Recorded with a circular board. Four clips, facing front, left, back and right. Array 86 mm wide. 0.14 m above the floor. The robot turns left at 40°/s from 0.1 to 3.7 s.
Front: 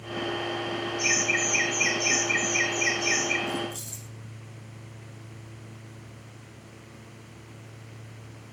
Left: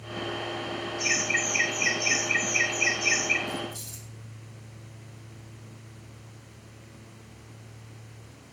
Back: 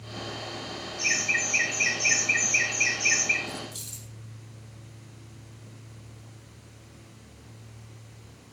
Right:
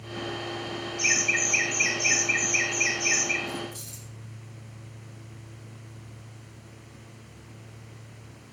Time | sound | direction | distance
1.0 | laughter | 75° right | 9 m
3.5 | keys jangling | 170° right | 3.5 m